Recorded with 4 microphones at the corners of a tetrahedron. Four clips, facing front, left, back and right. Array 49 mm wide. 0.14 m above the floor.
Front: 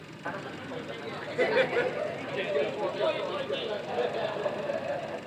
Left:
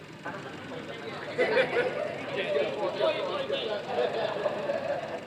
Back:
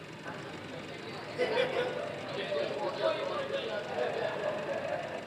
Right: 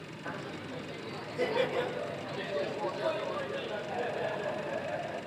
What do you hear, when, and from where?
0.2 s laughter: 25° left, 1.7 m; by 5.2 s 70° left, 6 m